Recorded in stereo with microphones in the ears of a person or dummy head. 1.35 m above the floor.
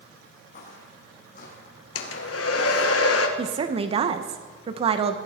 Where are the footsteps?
55° left (ahead or behind), 4 m; by 2.9 s 60° left (ahead or behind), 3 m.